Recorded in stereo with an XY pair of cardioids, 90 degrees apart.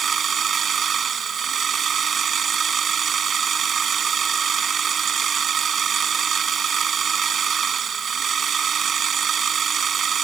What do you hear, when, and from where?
0.0 s a machine running: 50° right